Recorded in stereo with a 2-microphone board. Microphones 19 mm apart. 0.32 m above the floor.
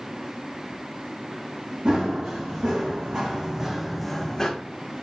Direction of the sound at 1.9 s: 70° right (ahead or behind).